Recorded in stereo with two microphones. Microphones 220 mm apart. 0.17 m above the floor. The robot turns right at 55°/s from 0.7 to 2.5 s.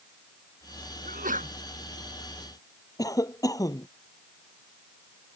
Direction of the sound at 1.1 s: 45° right (ahead or behind).